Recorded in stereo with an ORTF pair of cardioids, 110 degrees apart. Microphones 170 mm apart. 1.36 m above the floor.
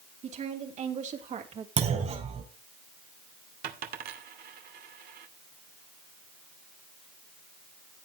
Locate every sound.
0.2 s a woman speaking: 45° right, 4 m
1.8 s a clunk: 40° right, 3.5 m
3.6 s a dropped coin: 70° right, 2 m